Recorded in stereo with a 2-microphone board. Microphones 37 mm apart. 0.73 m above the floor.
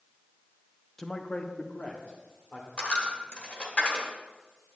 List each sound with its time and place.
1.0 s a man speaking: 10° left (ahead or behind), 0.5 m; by 2.7 s 45° left (ahead or behind), 1.8 m
2.8 s a dropped coin: 35° left (ahead or behind), 1.4 m